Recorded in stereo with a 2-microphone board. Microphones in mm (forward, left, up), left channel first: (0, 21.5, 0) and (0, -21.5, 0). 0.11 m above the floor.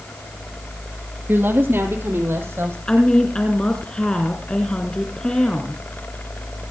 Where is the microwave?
No microwave in this recording.